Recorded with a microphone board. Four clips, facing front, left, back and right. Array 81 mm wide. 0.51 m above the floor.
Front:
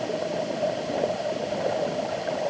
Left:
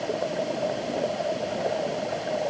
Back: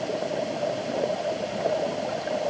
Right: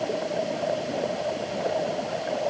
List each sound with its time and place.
Only background noise.